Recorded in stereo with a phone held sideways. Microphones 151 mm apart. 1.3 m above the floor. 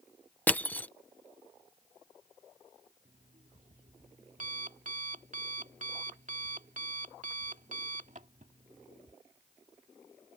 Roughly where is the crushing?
Centre.